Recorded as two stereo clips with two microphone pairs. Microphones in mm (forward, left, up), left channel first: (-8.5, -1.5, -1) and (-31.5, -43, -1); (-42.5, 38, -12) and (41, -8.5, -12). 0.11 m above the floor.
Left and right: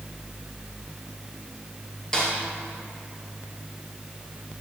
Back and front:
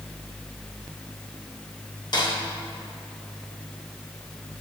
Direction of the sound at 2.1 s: 135° left.